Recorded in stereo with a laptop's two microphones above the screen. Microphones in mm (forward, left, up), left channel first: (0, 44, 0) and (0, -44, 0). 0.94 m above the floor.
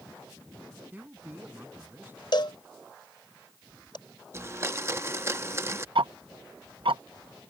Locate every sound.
0.9 s a man speaking: 20° right (ahead or behind); by 2.2 s 25° right (ahead or behind)
2.3 s a cowbell: 60° left (ahead or behind)
4.3 s a blender: 30° right (ahead or behind)
6.0 s ticking: 75° right (ahead or behind)